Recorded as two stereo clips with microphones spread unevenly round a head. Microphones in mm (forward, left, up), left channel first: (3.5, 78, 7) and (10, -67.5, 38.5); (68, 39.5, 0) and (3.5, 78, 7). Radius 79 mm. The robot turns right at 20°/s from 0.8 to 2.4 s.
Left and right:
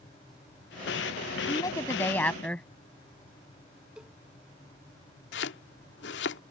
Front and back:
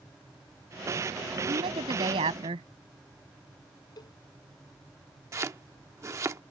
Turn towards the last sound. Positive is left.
turn(degrees=100)